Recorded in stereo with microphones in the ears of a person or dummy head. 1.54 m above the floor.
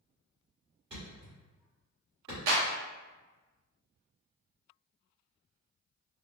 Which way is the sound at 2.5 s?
70° right (ahead or behind).